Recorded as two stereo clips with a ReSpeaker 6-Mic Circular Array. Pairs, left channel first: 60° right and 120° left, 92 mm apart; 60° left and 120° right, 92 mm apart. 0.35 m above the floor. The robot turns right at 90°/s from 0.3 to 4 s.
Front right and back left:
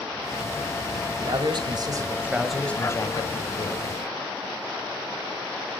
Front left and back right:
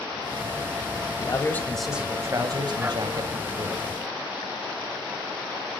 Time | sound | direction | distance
1.2 | a man speaking | 90° left | 1.7 m